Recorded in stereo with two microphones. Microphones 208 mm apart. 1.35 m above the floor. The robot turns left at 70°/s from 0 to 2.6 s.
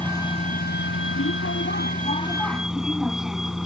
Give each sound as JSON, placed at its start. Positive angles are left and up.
{"t": 0.0, "sound": "a vehicle", "side_deg": 5}